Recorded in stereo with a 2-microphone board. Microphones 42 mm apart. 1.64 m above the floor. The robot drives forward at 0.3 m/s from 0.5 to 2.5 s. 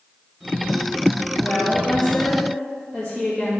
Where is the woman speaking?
25° left (ahead or behind), 2 m.